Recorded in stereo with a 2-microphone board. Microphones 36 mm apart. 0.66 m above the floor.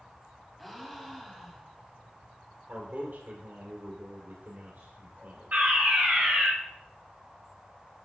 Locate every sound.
0.6 s a gasp: centre (ahead or behind), 1.3 m
2.7 s a man speaking: 55° right (ahead or behind), 2.5 m
5.5 s a fire alarm: 55° right (ahead or behind), 3.5 m